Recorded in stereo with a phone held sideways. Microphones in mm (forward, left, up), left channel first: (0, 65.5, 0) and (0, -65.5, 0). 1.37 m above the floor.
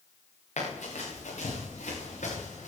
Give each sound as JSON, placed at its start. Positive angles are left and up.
{"t": 0.6, "sound": "running footsteps", "side_deg": 75, "distance_m": 6.0}